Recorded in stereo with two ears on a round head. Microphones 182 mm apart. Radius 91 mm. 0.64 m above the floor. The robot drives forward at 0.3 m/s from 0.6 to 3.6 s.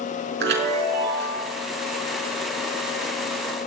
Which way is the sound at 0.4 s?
55° right (ahead or behind).